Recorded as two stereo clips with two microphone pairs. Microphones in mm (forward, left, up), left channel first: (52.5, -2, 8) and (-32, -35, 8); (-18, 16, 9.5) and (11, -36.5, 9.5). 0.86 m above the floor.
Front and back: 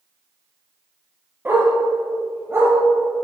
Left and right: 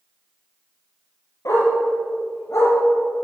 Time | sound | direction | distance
1.4 | a dog barking | 135° left | 5.5 m